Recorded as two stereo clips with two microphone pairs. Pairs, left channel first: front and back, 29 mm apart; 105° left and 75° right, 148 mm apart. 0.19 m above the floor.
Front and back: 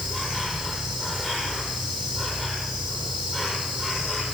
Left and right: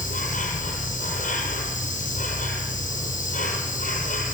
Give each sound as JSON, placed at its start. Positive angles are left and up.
{"t": 0.0, "sound": "an insect", "azimuth_deg": 75, "distance_m": 6.5}